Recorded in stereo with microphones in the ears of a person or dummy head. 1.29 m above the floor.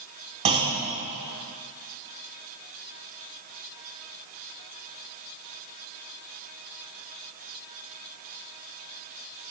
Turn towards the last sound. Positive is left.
turn(degrees=-30)  # may be behind; listen again after turning